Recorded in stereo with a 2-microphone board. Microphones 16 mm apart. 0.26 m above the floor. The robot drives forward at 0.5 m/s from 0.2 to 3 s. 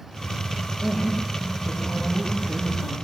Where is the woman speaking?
80° right, 8.5 m.